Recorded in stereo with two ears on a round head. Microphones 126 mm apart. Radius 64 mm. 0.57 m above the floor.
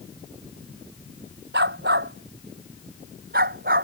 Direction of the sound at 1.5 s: 90° right.